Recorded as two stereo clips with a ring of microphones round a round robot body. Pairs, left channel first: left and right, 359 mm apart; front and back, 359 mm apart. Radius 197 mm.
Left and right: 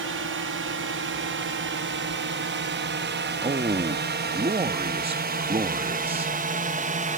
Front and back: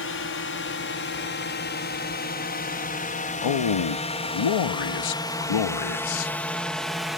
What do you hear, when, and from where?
0.0 s a drone: 45° right; by 7.2 s 95° right
3.4 s a man speaking: 15° right